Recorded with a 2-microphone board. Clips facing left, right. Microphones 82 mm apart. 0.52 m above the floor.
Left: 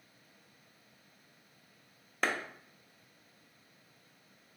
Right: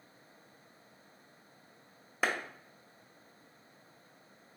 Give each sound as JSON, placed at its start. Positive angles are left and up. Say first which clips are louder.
{"t": 2.2, "sound": "a clap", "louder": "even", "side_deg": -5, "distance_m": 0.5}